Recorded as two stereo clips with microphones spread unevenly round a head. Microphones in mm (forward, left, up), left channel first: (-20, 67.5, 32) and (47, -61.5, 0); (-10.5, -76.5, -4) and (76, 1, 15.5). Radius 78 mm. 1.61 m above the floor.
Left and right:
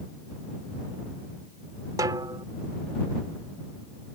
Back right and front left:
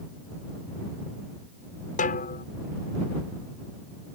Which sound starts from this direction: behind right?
A snare drum, at 2.0 s.